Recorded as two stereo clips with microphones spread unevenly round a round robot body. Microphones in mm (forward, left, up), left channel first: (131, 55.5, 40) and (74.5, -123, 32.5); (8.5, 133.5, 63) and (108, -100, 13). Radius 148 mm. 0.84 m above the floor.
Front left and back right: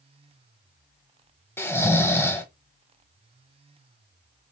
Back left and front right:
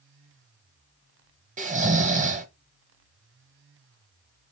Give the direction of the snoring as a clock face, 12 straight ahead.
12 o'clock.